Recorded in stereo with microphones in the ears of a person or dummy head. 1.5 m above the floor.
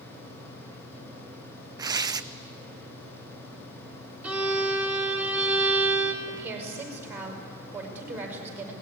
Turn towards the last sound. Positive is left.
turn(degrees=-10)  # may be behind; listen again after turning